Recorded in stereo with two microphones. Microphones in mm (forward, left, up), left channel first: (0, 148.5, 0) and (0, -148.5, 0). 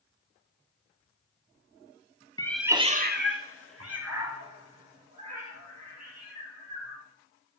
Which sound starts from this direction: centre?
A cat meowing, at 2.4 s.